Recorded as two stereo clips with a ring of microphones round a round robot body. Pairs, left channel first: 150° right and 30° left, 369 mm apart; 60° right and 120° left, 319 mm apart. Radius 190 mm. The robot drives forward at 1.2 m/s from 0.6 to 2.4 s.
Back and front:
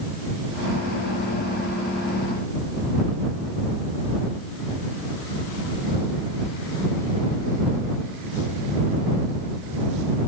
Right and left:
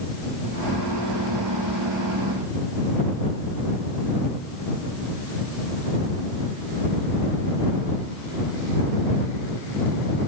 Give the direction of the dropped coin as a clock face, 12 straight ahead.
I don't hear a dropped coin.